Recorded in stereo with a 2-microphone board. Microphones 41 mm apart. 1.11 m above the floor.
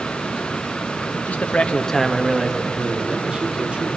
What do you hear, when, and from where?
1.1 s a man speaking: 55° left (ahead or behind), 1.5 m; by 3.9 s 25° right (ahead or behind), 3.5 m